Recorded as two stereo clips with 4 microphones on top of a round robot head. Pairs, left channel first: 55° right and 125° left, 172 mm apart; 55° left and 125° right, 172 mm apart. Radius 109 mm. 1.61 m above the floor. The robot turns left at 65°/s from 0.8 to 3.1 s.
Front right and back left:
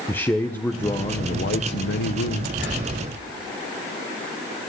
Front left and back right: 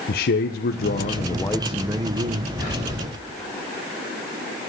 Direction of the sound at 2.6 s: 90° left.